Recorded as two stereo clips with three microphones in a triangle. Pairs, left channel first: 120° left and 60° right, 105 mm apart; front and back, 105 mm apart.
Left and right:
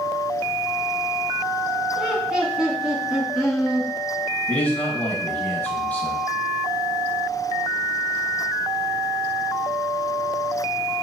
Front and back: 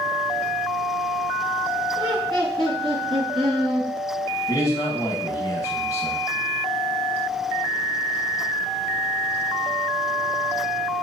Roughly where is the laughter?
Behind right.